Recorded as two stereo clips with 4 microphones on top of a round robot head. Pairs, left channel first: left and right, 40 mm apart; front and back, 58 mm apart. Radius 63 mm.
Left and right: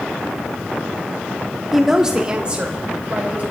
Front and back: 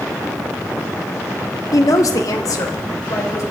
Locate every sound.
1.7 s a woman speaking: 5° right, 1.3 m; by 3.4 s 35° right, 3.5 m